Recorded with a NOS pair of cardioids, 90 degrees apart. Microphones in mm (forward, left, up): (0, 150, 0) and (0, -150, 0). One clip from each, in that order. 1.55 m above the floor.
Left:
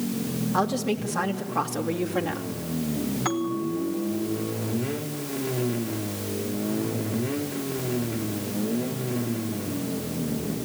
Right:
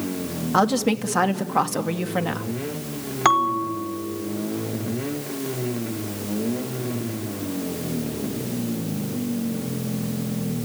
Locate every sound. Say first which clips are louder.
0.5 s a woman speaking: right 6 dB; 55° right, 2.5 m; by 2.5 s 35° right, 2.5 m
3.2 s a bell: right 11 dB; 70° right, 2 m